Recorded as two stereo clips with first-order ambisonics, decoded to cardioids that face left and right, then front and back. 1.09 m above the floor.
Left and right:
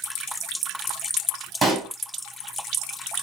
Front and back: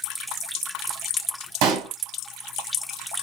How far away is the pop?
About 2 m.